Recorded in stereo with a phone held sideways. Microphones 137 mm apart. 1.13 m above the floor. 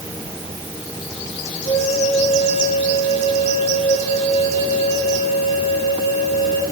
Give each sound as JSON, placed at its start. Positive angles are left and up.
{"t": 1.6, "sound": "a flute", "side_deg": 65, "distance_m": 8.0}